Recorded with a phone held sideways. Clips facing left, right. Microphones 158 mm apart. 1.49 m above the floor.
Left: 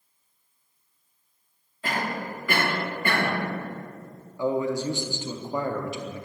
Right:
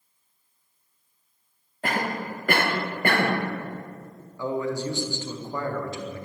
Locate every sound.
1.8 s a cough: 55° right (ahead or behind), 1.1 m
4.4 s a man speaking: 20° left (ahead or behind), 0.6 m